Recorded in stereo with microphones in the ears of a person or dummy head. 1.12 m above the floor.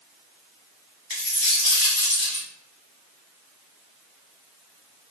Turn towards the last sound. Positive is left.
turn(degrees=30)  # may be behind; listen again after turning